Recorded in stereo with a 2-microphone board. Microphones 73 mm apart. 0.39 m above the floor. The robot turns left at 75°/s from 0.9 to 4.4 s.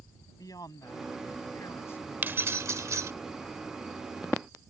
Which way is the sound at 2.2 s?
40° right.